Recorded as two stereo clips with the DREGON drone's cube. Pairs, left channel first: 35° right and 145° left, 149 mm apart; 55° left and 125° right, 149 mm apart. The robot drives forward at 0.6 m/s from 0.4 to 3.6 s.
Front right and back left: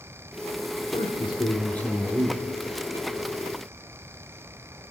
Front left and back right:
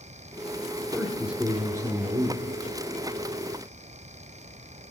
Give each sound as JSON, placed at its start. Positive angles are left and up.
{"t": 0.9, "sound": "a man speaking", "azimuth_deg": -30, "distance_m": 0.8}